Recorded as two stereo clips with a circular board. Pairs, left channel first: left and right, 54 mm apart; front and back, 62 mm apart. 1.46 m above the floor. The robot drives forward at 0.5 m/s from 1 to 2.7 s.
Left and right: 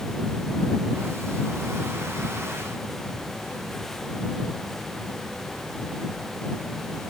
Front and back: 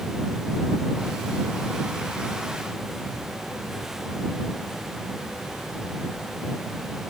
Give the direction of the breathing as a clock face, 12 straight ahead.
I don't hear breathing.